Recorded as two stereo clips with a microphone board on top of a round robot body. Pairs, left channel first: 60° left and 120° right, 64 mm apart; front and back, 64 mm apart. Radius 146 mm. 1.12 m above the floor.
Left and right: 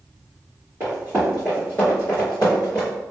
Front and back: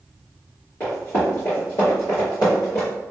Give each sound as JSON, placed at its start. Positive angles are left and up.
{"t": 0.8, "sound": "running footsteps", "azimuth_deg": -65, "distance_m": 1.3}